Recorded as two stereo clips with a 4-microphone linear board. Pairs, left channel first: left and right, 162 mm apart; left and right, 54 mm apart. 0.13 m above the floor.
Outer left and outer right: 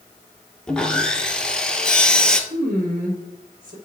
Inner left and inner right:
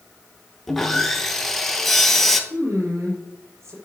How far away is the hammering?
I don't hear hammering.